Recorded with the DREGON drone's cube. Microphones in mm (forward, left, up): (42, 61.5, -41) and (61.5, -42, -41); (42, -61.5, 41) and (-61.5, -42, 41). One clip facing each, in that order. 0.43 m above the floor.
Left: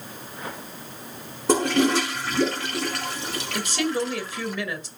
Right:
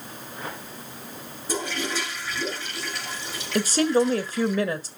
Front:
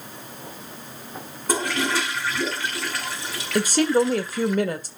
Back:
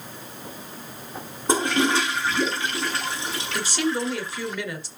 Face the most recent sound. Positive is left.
turn(degrees=-40)